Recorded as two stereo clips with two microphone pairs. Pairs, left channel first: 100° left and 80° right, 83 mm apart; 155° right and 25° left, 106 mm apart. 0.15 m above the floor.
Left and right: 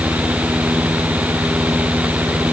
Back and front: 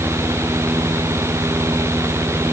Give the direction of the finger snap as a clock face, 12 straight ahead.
I don't hear a finger snap.